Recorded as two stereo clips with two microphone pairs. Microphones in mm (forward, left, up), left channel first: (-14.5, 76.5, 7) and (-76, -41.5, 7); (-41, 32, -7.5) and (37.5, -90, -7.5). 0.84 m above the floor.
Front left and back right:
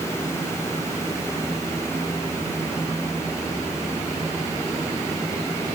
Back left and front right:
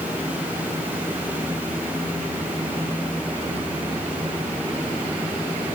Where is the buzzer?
No buzzer in this recording.